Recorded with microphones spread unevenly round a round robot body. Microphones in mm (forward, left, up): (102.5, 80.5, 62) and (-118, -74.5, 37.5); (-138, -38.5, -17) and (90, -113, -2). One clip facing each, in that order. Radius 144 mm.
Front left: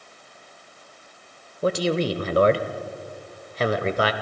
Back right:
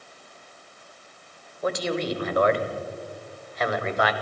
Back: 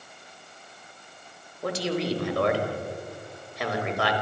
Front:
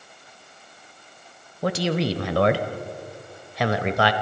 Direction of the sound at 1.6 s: 20° right.